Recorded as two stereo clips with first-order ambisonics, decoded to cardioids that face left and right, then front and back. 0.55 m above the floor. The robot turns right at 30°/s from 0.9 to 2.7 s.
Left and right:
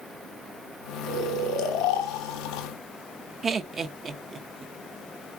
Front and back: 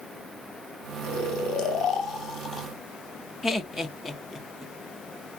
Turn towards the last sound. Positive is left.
turn(degrees=-65)